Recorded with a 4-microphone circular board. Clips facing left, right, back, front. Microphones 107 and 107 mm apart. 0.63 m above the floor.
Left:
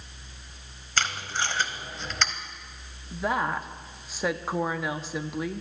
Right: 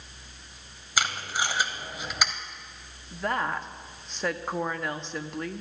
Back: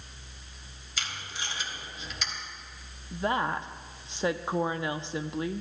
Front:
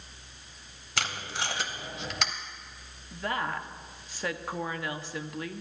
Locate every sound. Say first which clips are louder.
1.0 s tape being pulled: right 1 dB, front 6 dB; 10° right, 0.9 m
3.1 s a woman speaking: left 2 dB, back 4 dB; 170° left, 0.6 m